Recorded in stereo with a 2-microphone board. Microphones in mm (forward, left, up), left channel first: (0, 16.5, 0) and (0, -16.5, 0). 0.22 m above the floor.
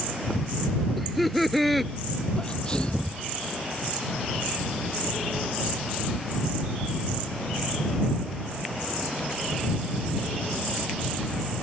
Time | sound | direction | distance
1.0 | laughter | 5° left (ahead or behind) | ?
2.4 | a sneeze | 25° left (ahead or behind) | ?